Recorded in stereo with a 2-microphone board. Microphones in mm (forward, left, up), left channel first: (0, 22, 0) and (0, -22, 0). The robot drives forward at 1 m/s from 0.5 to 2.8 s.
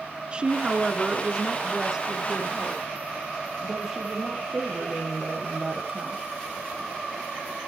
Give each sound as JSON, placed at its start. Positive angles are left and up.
{"t": 0.3, "sound": "a woman speaking", "side_deg": -25, "distance_m": 1.1}